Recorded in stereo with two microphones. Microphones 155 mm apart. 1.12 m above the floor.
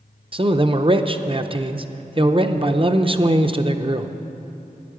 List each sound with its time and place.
0.3 s a man speaking: 35° right (ahead or behind), 0.6 m